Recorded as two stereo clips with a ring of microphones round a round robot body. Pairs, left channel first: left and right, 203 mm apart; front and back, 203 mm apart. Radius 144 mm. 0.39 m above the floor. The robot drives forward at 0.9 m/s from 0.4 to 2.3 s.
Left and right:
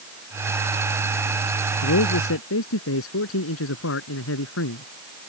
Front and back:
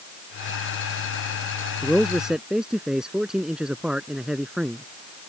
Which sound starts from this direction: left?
A man speaking, at 1.8 s.